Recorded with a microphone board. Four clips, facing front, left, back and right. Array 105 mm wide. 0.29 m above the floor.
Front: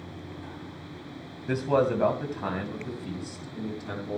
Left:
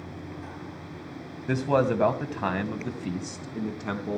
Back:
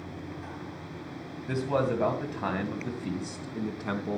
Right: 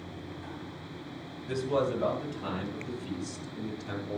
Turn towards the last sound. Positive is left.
turn(degrees=130)